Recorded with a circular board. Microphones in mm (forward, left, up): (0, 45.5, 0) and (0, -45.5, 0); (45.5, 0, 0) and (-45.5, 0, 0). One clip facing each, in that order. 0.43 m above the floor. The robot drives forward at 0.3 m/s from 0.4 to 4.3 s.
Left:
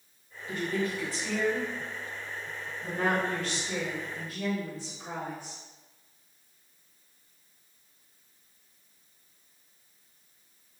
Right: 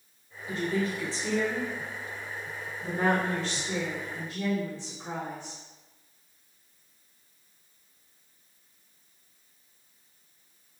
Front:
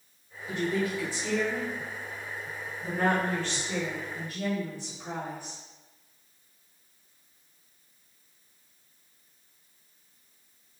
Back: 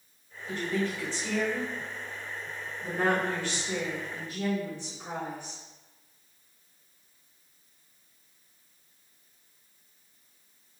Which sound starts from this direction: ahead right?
A woman speaking, at 0.5 s.